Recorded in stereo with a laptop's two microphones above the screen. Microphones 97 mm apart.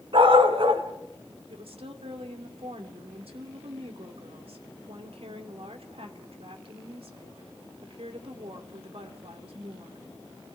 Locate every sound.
0.1 s a dog barking: 65° right (ahead or behind), 2.5 m
1.5 s a woman speaking: 70° right (ahead or behind), 2.5 m